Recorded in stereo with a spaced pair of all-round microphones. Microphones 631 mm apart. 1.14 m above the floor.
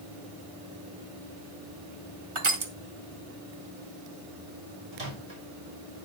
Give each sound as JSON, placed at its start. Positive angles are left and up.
{"t": 2.4, "sound": "crushing", "side_deg": -50, "distance_m": 1.1}
{"t": 4.9, "sound": "a microwave", "side_deg": -65, "distance_m": 4.0}